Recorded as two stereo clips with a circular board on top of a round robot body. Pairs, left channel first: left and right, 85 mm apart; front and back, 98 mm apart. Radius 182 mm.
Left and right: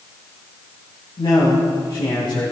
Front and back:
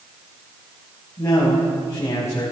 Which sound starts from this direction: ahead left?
A man speaking, at 1.2 s.